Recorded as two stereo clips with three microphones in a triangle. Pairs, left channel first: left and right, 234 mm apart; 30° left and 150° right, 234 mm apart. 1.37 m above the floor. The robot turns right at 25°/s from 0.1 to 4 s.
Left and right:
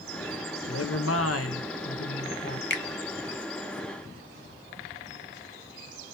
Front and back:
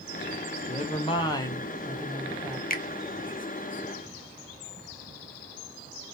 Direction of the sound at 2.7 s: 70° left.